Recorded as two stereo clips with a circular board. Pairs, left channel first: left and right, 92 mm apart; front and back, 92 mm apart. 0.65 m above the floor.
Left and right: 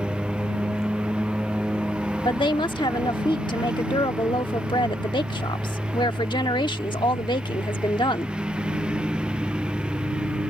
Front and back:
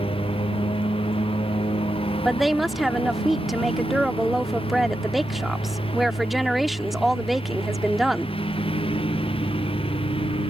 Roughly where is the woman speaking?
Left.